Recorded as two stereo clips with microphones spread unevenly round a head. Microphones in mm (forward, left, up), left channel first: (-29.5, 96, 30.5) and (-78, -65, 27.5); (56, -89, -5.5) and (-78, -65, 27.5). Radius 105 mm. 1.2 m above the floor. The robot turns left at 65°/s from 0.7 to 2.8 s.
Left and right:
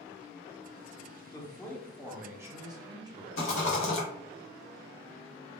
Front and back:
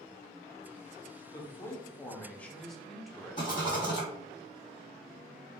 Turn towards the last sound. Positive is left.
turn(degrees=60)